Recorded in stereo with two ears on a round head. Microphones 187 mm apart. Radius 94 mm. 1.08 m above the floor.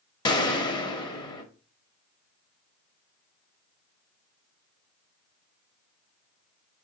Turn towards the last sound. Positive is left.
turn(degrees=20)  # may be behind; listen again after turning